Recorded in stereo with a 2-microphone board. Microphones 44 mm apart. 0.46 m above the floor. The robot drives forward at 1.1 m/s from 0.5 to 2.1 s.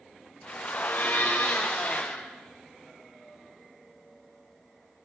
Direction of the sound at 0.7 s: 60° left (ahead or behind).